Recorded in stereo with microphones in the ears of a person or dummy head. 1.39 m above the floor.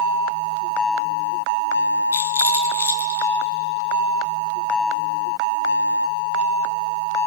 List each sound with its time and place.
2.1 s a rattle: 5° left (ahead or behind), 0.8 m